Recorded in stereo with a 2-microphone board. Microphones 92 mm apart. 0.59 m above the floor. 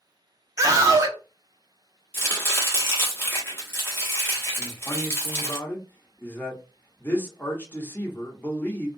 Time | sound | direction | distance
0.6 | a scream | 35° right (ahead or behind) | 0.8 m
2.1 | chopping | 25° left (ahead or behind) | 1.0 m
4.6 | a man speaking | 20° left (ahead or behind) | 0.9 m